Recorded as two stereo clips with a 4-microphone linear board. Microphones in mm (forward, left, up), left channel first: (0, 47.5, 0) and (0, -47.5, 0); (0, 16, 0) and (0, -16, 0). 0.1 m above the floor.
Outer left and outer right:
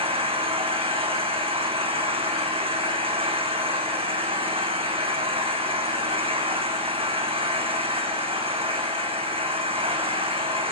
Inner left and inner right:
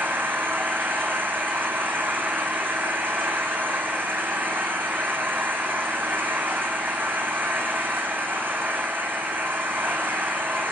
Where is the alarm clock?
I don't hear an alarm clock.